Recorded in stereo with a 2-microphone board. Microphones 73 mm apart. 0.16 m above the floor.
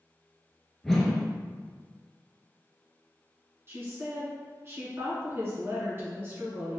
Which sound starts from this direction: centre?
A whoosh, at 0.8 s.